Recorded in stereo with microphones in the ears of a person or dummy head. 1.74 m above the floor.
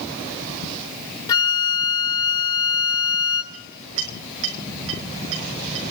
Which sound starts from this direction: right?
A clink, at 3.5 s.